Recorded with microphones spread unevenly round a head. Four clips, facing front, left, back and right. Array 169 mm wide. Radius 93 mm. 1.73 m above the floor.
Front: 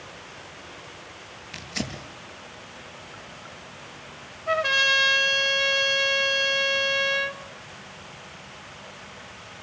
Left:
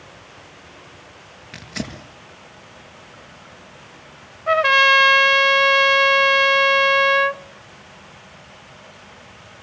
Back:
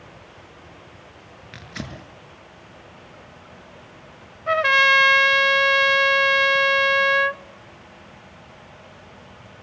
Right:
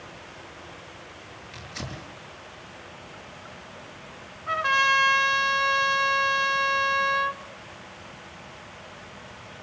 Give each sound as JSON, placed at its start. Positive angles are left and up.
{"t": 1.5, "sound": "tearing paper", "azimuth_deg": 115, "distance_m": 6.0}
{"t": 4.5, "sound": "a trumpet", "azimuth_deg": 120, "distance_m": 0.5}